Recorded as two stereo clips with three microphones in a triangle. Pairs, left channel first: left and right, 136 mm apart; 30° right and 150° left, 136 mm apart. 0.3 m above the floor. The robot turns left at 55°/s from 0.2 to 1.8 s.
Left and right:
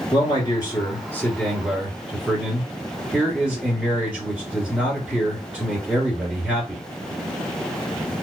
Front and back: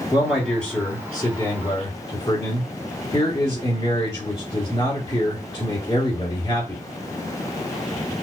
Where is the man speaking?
80° left, 1.6 m; by 6.8 s 5° right, 1.6 m.